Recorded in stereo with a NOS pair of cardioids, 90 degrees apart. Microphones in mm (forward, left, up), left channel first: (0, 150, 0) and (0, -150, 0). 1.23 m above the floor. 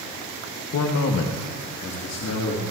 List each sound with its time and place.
0.7 s a man speaking: 60° left, 1.2 m; by 2.6 s 55° left, 2.5 m